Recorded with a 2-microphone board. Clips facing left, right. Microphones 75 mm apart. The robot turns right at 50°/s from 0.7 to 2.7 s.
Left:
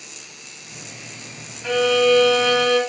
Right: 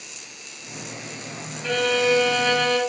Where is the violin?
170° left, 1.1 m; by 2.8 s 135° right, 1.1 m.